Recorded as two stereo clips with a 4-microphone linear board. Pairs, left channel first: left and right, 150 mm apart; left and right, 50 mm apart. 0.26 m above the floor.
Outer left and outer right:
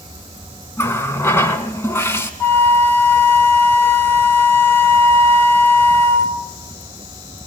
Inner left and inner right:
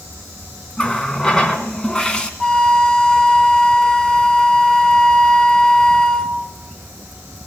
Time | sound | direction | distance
0.8 | a running tap | 15° left (ahead or behind) | 1.8 m
2.4 | a flute | 15° left (ahead or behind) | 1.2 m